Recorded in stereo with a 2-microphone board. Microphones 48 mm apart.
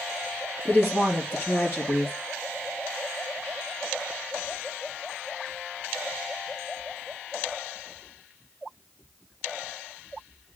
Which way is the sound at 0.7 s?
40° left (ahead or behind).